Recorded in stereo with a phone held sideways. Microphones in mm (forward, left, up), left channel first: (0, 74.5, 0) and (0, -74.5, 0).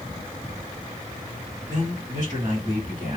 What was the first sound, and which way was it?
A man speaking, 30° right (ahead or behind).